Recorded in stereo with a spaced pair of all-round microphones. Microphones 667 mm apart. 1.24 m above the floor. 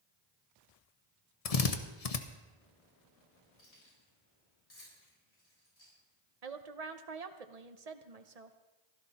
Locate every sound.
1.4 s a drill: 60° left (ahead or behind), 1.0 m
3.6 s keys jangling: 60° left (ahead or behind), 7 m
6.4 s a woman speaking: 65° right (ahead or behind), 1.0 m